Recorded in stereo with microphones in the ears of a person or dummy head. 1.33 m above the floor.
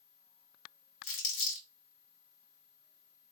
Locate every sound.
1.0 s crumpling: 65° left (ahead or behind), 1.3 m